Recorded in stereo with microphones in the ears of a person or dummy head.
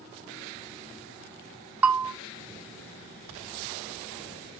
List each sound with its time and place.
1.8 s a bell: 10° right (ahead or behind), 0.5 m